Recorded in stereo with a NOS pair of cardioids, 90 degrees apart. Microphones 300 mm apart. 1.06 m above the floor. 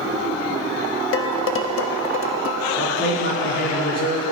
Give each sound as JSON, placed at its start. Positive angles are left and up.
{"t": 1.1, "sound": "dishes clattering", "azimuth_deg": 45, "distance_m": 1.0}
{"t": 2.8, "sound": "a man speaking", "azimuth_deg": 55, "distance_m": 3.5}